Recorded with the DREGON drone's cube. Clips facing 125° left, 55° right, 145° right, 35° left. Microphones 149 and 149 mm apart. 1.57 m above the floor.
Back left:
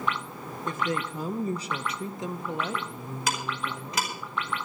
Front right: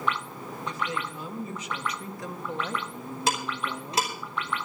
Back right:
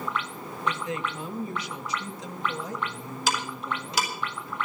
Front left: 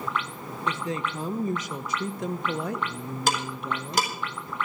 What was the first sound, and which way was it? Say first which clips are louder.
A woman speaking: back left 4 dB, front left 1 dB; 90° left.